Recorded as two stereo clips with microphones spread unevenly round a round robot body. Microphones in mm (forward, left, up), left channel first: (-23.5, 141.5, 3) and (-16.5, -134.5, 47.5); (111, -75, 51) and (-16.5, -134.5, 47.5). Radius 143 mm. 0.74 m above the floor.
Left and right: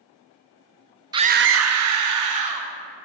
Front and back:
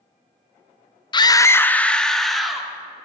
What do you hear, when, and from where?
1.1 s a scream: 10° right, 0.5 m; by 2.7 s 65° right, 1.7 m